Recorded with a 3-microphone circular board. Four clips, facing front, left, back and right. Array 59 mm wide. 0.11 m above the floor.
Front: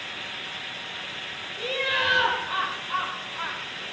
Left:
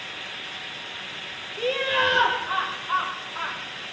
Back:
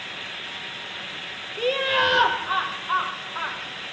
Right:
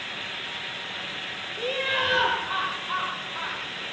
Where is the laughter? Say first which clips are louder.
Left 4 dB, back 5 dB; 165° left, 4.5 m; by 3.6 s 170° left, 6.5 m.